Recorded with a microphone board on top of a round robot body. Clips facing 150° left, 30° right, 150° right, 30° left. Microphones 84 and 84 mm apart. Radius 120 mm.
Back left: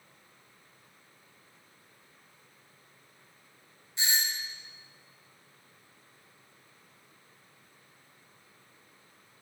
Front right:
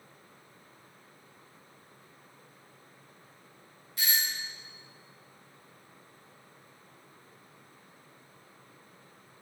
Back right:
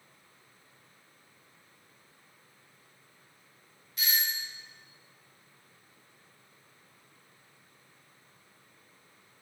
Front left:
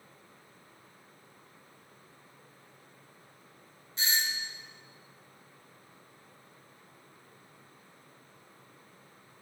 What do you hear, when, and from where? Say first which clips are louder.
4.0 s a doorbell: even, front left 1 dB; 85° left, 1.0 m